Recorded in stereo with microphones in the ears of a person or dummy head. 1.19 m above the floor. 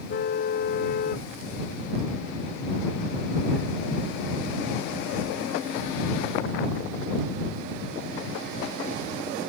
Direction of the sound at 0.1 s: 45° left (ahead or behind).